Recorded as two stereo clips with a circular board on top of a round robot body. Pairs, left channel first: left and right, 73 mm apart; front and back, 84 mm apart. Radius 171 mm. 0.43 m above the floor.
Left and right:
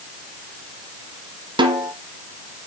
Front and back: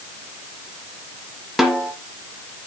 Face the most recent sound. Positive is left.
turn(degrees=-90)